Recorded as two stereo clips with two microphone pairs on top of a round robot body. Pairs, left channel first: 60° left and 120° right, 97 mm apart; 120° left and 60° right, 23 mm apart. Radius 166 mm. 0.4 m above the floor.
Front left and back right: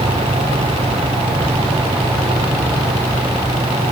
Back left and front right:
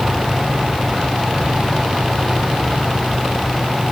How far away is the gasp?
No gasp in this recording.